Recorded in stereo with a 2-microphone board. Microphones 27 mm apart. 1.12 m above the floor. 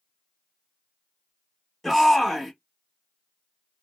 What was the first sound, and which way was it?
A shout, 10° left (ahead or behind).